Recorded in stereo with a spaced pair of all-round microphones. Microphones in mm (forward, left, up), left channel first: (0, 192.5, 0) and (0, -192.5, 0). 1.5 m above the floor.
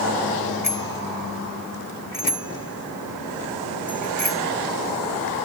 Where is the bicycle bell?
80° left; by 4.4 s 65° left (ahead or behind).